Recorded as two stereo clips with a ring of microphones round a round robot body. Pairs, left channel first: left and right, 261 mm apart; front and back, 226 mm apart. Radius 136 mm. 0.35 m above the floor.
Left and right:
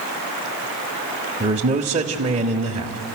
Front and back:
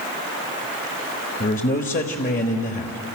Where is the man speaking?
35° right, 1.5 m.